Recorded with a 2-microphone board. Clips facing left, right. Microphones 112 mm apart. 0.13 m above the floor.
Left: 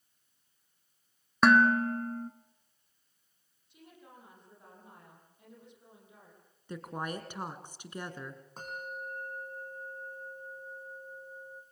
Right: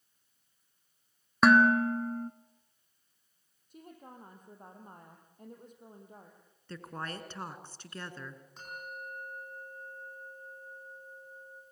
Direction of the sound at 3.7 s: 45° right (ahead or behind).